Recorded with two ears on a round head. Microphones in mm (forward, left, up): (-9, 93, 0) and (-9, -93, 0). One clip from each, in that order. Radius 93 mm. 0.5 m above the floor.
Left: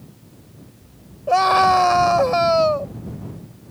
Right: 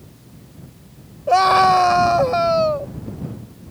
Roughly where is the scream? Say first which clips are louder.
Right 2 dB; centre.